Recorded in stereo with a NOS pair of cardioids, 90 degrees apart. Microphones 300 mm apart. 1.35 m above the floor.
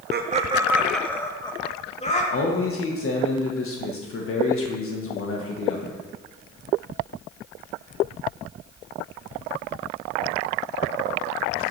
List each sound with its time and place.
0.1 s laughter: 40° right, 1.2 m; by 2.2 s 25° left, 3 m
2.3 s a man speaking: 50° left, 1.5 m